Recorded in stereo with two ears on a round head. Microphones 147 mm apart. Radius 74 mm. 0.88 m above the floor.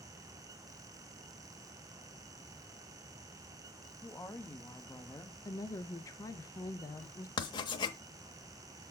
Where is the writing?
25° left (ahead or behind), 0.8 m.